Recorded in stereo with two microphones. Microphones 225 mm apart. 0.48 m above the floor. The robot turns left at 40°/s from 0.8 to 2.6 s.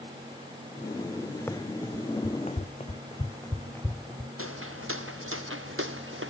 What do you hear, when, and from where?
1.5 s running footsteps: 10° left (ahead or behind); by 4.3 s centre (ahead or behind)
4.4 s footsteps: 70° right (ahead or behind); by 6.3 s 65° right (ahead or behind)